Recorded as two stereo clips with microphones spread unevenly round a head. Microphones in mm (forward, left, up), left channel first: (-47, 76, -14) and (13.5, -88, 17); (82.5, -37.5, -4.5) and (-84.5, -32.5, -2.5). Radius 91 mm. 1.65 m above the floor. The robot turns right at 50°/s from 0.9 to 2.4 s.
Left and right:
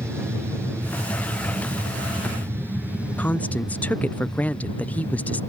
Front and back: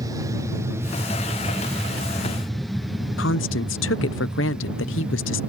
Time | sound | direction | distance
0.0 | an aircraft | 150° right | ?
3.2 | a woman speaking | 25° left | ?